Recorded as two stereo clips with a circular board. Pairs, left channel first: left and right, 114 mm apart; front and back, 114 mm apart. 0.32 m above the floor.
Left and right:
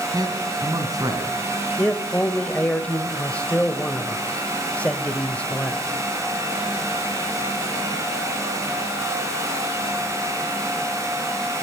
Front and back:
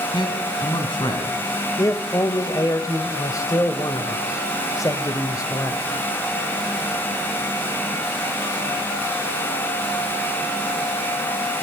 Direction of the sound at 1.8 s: 20° left.